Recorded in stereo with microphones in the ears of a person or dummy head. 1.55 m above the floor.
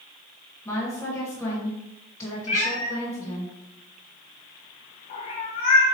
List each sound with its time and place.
0.7 s a woman speaking: 10° left (ahead or behind), 1.6 m
2.5 s a cat meowing: 20° left (ahead or behind), 0.8 m